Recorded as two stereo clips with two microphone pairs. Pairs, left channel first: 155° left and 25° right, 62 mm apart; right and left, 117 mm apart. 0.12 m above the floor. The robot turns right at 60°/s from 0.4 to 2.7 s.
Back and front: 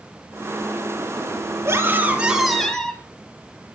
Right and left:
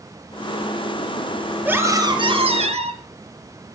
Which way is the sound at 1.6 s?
15° left.